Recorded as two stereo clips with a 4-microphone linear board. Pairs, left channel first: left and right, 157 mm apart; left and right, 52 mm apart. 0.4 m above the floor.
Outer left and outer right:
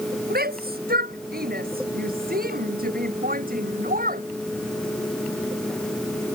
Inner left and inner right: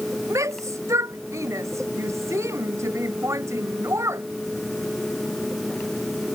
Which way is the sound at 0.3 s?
75° right (ahead or behind).